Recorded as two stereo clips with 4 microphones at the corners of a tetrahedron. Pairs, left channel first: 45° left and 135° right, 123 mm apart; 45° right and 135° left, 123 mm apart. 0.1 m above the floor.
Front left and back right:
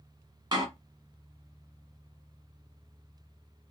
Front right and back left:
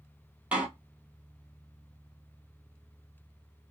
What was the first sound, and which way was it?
A door slam, 155° right.